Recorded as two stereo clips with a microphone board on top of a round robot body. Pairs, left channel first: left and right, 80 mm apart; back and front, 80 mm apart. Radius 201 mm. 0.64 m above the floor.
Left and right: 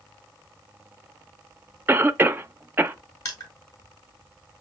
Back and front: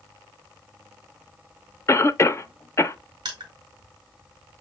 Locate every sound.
1.9 s a cough: 145° right, 0.6 m
3.2 s crushing: 35° left, 1.1 m